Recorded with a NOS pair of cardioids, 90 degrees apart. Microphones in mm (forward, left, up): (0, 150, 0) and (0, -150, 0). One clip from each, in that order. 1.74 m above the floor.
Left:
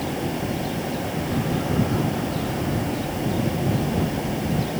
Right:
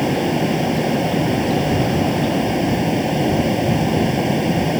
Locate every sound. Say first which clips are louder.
0.0 s a fan: right 8 dB; 60° right